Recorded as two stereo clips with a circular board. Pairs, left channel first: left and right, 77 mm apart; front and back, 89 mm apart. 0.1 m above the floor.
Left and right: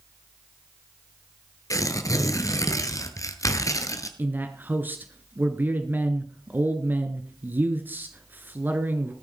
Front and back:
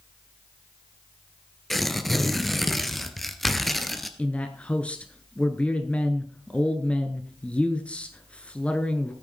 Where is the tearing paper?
90° left, 1.3 m.